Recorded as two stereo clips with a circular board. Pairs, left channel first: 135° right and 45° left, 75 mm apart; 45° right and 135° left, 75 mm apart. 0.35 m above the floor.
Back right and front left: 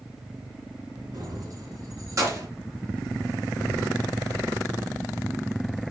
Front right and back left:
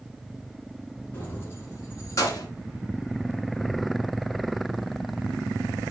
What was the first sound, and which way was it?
Keys jangling, 20° left.